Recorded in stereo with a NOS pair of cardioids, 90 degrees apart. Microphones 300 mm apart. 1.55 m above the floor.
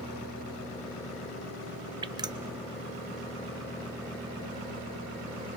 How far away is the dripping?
About 0.7 m.